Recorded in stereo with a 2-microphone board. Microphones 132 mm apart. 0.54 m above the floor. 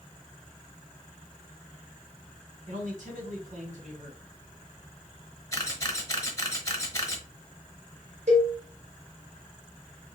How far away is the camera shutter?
About 1.0 m.